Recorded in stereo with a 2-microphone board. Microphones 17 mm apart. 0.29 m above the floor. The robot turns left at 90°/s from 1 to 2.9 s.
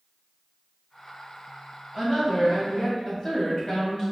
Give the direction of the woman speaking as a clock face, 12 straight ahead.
6 o'clock.